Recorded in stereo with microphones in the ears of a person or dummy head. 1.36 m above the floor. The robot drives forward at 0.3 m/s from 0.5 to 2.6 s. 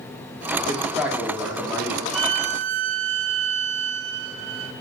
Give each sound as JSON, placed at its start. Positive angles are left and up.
{"t": 0.7, "sound": "a man speaking", "side_deg": -10, "distance_m": 3.0}
{"t": 2.1, "sound": "a violin", "side_deg": -70, "distance_m": 0.8}